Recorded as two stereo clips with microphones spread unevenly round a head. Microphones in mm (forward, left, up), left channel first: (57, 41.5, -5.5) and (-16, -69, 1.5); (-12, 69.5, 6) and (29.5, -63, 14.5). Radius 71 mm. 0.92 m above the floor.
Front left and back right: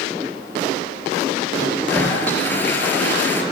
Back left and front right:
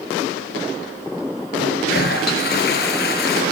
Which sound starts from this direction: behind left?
A toilet flushing, at 1.6 s.